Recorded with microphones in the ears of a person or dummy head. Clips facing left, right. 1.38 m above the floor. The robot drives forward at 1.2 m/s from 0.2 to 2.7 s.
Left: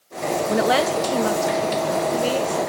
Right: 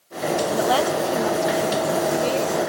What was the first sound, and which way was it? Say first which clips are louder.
A woman speaking: left 3 dB; 30° left (ahead or behind).